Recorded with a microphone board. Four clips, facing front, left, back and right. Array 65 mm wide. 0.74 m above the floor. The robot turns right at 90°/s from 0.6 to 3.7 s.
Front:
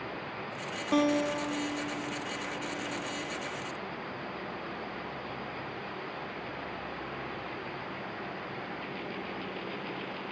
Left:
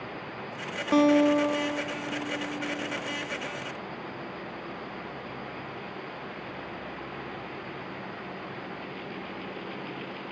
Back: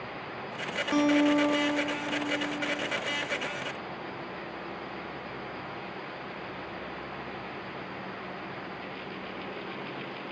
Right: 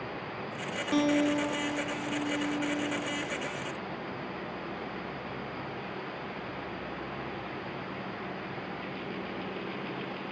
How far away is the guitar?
About 1.1 m.